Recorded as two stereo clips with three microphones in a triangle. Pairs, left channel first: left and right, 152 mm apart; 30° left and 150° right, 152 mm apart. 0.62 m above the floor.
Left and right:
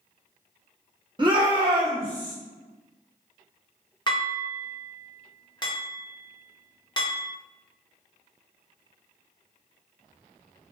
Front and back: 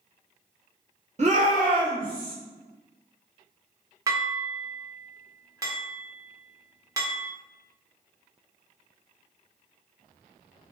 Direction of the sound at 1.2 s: 140° right.